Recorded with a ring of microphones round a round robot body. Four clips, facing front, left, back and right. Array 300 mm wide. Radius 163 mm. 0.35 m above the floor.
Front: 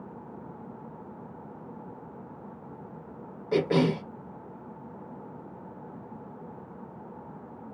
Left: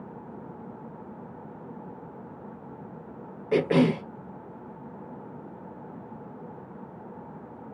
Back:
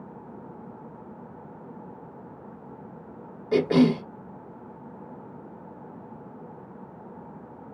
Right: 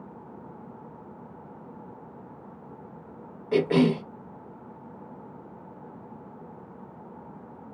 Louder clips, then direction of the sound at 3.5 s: Even, back 4 dB; 120° left.